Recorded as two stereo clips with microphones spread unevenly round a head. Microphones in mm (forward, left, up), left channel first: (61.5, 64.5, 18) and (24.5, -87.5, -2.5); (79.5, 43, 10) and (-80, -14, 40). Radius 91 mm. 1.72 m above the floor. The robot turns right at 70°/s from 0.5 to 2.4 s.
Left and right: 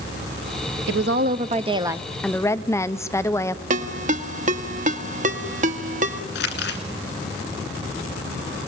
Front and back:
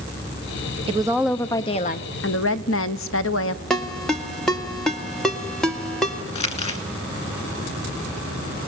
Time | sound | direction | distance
0.9 | a woman speaking | 105° right | 0.9 m
3.7 | a ringtone | 75° right | 1.4 m
6.3 | crumpling | 75° left | 2.5 m